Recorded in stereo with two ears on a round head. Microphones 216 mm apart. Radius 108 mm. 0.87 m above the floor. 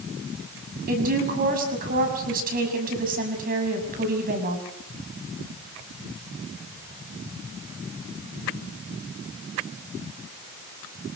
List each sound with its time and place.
0.9 s a woman speaking: 35° right (ahead or behind), 6 m